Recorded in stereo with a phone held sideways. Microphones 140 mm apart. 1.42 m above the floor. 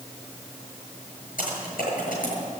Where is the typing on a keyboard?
80° left, 7.5 m.